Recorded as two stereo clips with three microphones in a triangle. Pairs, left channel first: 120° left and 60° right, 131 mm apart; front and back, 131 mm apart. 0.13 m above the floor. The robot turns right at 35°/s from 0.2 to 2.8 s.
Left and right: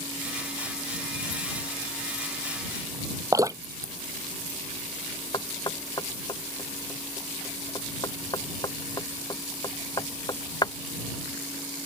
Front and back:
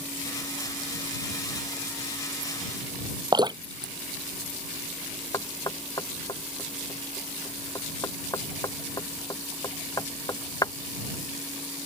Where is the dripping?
125° right.